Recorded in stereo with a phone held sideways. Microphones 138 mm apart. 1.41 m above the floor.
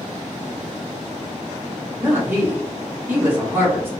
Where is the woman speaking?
15° right (ahead or behind), 0.9 m.